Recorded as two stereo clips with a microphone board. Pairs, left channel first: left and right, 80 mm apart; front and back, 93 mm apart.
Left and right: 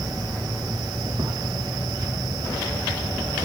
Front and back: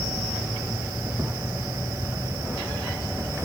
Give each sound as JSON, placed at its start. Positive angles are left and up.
{"t": 0.0, "sound": "an insect", "azimuth_deg": -120}